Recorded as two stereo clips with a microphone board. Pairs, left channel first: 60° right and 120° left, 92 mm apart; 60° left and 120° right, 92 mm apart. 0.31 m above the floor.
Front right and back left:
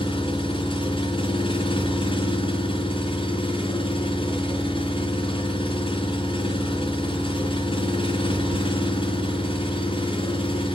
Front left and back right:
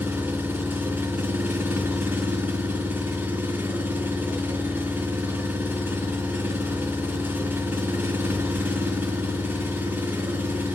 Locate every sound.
0.0 s an engine running: 50° right, 3.5 m